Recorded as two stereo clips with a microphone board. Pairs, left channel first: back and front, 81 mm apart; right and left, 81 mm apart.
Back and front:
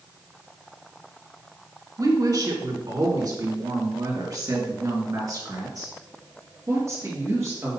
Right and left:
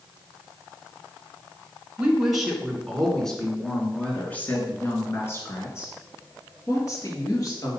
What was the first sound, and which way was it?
A woman speaking, 15° left.